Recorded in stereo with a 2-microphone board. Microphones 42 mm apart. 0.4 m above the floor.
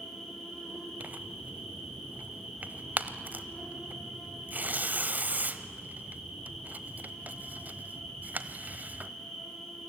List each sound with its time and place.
0.0 s an insect: 10° left (ahead or behind), 6.5 m
1.0 s tearing paper: 45° right (ahead or behind), 0.9 m